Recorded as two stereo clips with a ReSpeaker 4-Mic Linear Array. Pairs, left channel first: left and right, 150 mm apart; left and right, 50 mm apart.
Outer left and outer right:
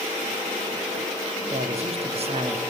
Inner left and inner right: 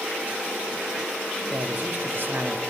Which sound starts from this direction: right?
A man speaking, at 1.5 s.